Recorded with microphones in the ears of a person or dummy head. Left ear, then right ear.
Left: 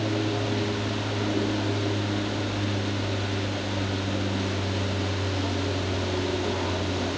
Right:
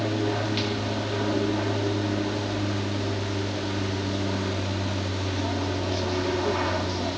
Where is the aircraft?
65° right (ahead or behind).